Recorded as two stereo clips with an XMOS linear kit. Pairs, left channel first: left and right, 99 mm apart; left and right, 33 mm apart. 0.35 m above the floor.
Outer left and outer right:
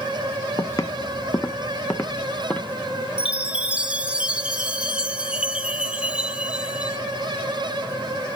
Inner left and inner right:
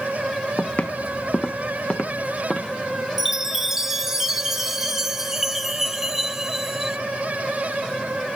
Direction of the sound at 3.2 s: 10° right (ahead or behind).